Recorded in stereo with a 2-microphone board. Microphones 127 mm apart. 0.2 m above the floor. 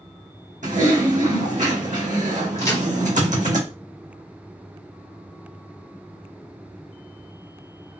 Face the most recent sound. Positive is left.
turn(degrees=30)  # may be behind; listen again after turning